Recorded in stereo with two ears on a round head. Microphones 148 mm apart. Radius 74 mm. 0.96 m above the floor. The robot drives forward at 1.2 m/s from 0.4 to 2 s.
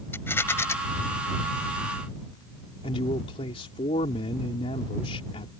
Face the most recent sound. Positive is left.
turn(degrees=35)  # may be behind; listen again after turning